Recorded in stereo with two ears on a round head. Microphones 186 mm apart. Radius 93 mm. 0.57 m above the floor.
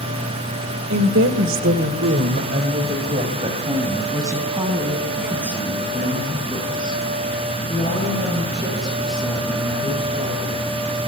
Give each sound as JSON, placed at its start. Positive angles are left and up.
{"t": 0.9, "sound": "a woman speaking", "side_deg": -60, "distance_m": 2.5}